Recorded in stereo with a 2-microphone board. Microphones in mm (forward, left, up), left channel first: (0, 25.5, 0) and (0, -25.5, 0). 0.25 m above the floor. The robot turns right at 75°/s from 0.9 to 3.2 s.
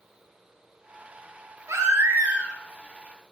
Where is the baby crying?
85° right, 2 m; by 2.6 s 20° right, 2 m.